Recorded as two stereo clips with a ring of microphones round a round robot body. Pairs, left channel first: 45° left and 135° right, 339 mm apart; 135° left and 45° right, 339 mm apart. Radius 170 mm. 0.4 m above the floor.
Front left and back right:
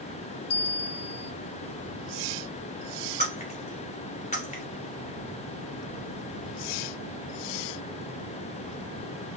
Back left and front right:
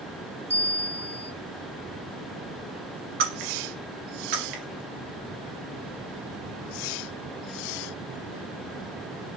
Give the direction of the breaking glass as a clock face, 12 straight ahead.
1 o'clock.